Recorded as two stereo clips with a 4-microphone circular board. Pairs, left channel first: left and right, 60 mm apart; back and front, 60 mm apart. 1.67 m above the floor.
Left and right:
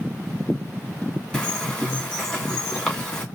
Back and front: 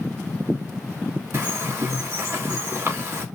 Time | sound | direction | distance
1.3 | a bird | 20° left | 1.6 m